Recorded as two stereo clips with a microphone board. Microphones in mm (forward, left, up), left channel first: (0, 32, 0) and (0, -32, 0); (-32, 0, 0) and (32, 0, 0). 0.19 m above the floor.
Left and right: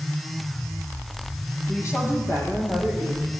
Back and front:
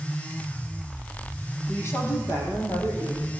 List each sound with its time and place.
1.7 s a woman speaking: 135° left, 8.5 m; by 3.3 s 145° left, 9.5 m